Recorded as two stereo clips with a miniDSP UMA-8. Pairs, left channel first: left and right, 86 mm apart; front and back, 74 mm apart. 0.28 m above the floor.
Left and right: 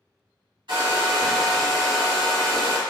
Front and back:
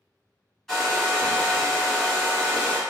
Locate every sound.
0.7 s a hair dryer: 90° right, 1.4 m